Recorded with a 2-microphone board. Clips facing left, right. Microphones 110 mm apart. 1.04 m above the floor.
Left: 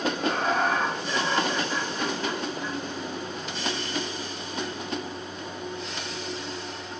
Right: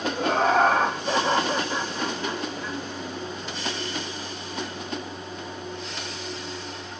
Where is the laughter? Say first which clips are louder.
Right 10 dB; 85° right, 1.8 m; by 2.8 s 5° left (ahead or behind), 1.9 m.